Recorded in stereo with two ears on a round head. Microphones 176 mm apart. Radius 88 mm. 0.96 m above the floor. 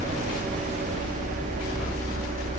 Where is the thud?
No thud in this recording.